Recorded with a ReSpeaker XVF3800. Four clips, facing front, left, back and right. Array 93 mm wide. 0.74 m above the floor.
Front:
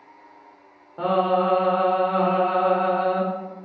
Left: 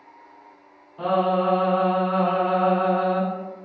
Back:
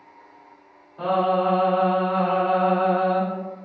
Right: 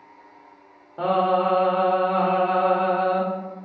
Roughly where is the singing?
Ahead right.